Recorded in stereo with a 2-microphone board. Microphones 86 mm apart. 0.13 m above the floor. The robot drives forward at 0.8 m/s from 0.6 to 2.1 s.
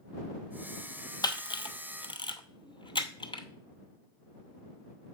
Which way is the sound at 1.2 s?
55° left (ahead or behind).